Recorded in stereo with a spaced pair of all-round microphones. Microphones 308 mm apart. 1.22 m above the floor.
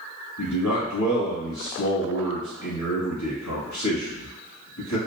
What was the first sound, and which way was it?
A man speaking, 70° left (ahead or behind).